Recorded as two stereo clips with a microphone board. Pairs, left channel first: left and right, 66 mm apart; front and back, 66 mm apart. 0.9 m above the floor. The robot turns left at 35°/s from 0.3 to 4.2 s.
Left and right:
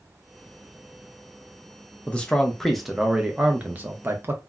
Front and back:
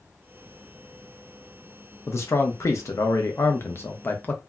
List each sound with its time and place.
2.1 s a man speaking: 25° left, 0.6 m; by 4.4 s 50° right, 0.6 m